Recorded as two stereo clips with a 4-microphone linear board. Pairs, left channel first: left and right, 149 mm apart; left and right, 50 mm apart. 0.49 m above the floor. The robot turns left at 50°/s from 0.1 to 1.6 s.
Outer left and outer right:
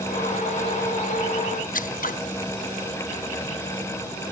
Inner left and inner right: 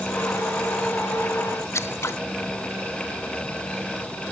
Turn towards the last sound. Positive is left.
turn(degrees=70)  # may be behind; listen again after turning